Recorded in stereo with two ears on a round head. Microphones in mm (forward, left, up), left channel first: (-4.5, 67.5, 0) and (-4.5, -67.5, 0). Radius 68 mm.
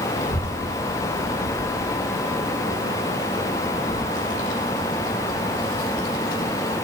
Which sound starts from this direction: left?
A child speaking, at 0.2 s.